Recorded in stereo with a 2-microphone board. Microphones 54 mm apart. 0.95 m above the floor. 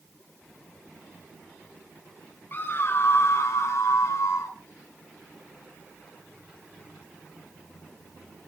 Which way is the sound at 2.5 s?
35° left (ahead or behind).